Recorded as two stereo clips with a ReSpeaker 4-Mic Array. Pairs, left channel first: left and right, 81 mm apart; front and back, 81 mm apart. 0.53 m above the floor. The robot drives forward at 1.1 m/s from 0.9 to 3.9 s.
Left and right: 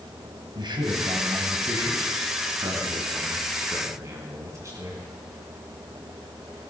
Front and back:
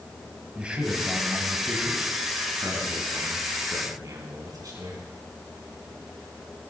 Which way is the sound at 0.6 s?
105° right.